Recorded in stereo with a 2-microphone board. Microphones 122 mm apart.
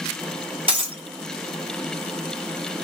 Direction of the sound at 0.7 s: 50° right (ahead or behind).